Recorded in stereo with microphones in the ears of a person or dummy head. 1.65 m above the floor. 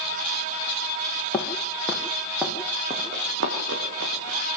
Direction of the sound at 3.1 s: 65° right (ahead or behind).